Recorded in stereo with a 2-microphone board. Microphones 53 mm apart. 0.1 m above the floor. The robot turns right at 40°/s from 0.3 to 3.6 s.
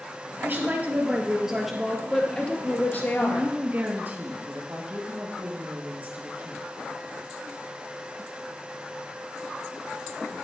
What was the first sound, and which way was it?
A woman speaking, 55° right.